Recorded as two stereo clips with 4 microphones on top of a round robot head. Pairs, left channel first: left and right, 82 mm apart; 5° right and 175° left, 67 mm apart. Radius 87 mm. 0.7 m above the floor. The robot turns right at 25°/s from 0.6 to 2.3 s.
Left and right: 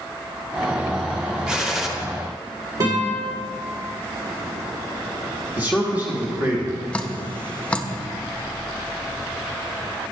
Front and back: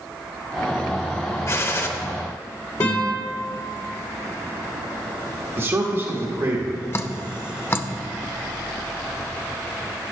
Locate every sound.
1.5 s a gunshot: 15° right, 1.1 m; by 1.9 s 5° right, 1.1 m
2.8 s a guitar: 45° right, 3 m
5.6 s a man speaking: 150° right, 1.4 m
6.9 s dripping: 20° left, 0.7 m